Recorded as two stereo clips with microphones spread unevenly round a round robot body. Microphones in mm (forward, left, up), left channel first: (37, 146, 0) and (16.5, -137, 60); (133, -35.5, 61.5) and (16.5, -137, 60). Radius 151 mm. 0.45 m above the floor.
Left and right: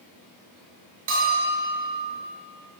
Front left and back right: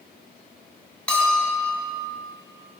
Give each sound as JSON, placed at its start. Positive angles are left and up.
{"t": 1.1, "sound": "a bell", "azimuth_deg": -40, "distance_m": 3.5}